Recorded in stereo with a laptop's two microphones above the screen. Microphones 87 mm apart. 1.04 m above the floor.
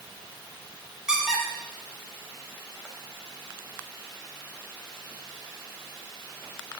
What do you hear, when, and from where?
1.1 s a squeak: 10° right (ahead or behind), 1.3 m